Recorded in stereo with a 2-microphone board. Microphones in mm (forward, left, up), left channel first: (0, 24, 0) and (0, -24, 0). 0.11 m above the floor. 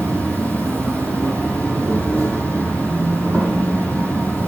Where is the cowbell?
I don't hear a cowbell.